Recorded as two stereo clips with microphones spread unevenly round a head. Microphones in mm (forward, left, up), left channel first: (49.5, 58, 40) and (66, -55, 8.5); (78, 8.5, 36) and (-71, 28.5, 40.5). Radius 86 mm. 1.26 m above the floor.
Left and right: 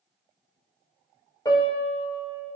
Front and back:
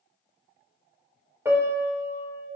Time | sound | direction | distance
1.4 | a piano | 105° left | 1.2 m